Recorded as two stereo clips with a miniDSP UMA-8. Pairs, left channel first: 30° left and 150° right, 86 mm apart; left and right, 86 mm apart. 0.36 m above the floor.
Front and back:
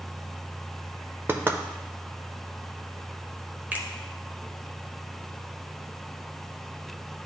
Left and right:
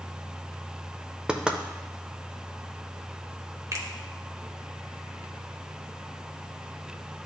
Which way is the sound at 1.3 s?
155° right.